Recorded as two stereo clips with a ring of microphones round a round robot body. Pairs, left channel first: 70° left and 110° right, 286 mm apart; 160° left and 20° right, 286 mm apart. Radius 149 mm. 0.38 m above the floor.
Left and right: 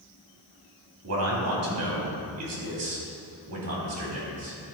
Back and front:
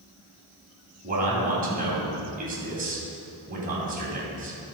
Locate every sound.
1.0 s a man speaking: 85° right, 3.5 m